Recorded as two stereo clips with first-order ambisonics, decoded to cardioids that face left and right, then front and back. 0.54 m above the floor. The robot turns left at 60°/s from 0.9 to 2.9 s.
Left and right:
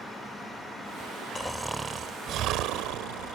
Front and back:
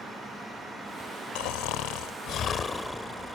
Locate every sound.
1.4 s snoring: 10° left; by 3.4 s 80° right